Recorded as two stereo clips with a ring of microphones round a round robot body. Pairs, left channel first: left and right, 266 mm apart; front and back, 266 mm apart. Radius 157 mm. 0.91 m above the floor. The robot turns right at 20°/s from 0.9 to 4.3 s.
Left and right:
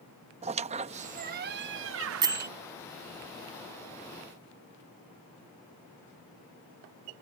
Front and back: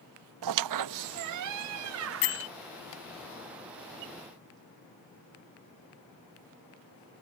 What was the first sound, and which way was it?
A squeak, 160° right.